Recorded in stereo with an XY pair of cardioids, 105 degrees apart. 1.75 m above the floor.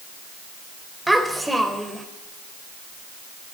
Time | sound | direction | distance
1.1 | a child speaking | 5° right | 5 m